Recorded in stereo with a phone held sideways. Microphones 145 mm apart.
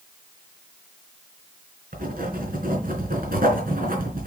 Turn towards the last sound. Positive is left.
turn(degrees=-80)